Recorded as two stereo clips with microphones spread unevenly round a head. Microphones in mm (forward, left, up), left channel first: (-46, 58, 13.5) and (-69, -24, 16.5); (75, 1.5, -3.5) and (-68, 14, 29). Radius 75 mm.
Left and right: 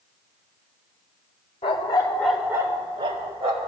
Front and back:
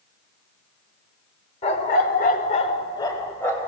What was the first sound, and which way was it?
A dog barking, 45° left.